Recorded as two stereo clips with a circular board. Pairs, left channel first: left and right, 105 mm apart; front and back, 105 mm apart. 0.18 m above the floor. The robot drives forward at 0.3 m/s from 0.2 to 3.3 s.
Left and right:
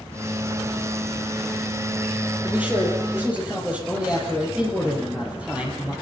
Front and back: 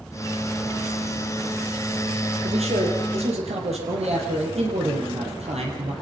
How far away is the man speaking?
About 5.5 m.